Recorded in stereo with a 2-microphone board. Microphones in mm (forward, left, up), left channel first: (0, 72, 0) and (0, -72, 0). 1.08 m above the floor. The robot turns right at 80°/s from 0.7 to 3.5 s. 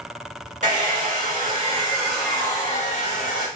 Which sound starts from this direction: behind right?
A hair dryer, at 0.6 s.